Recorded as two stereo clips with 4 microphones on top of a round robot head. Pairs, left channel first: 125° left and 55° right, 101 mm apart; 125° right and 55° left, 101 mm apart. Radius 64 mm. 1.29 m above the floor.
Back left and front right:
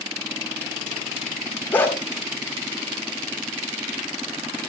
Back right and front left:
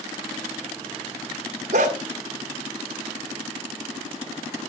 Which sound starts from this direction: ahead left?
A dog barking, at 1.7 s.